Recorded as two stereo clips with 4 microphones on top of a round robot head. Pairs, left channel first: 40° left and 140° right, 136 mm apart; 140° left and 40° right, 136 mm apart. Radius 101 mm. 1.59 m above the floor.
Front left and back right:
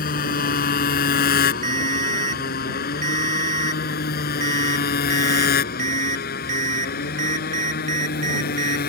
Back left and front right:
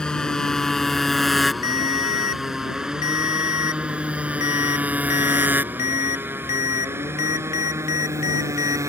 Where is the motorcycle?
55° left; by 8.9 s 30° left.